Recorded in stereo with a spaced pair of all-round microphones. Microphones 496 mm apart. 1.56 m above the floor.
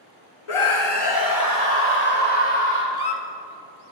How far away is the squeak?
About 1.0 m.